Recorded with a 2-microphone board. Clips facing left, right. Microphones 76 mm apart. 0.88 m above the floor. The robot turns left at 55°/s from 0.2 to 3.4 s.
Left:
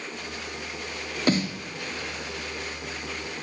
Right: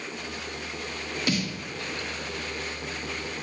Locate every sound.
1.3 s a snare drum: 35° left (ahead or behind), 1.0 m; by 1.6 s 15° left (ahead or behind), 1.0 m